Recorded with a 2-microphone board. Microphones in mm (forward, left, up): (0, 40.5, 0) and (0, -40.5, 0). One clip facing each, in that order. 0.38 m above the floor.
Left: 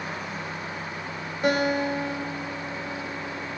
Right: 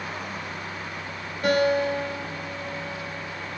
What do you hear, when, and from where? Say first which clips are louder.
1.4 s a guitar: right 2 dB; 15° left (ahead or behind), 1.1 m